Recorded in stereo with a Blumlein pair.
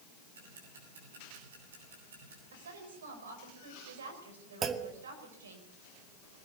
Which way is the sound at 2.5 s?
65° right.